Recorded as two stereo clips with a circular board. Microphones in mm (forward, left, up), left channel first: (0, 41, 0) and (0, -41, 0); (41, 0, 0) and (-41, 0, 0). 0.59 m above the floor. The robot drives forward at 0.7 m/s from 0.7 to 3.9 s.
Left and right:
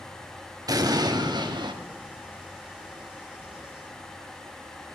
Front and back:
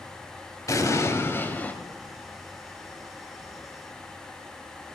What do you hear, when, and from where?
0.7 s an explosion: 50° right, 1.7 m; by 1.8 s 75° right, 1.4 m